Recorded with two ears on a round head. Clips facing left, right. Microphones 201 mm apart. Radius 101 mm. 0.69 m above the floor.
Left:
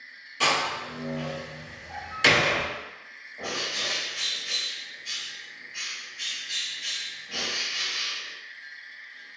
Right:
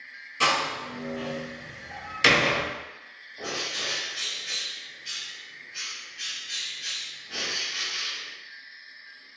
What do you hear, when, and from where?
0.4 s a door slam: 10° right (ahead or behind), 1.5 m
3.4 s a bird: 5° right (ahead or behind), 1.0 m